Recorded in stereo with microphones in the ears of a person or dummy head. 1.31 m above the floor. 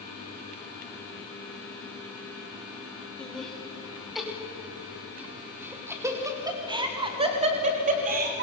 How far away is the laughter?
About 3.5 m.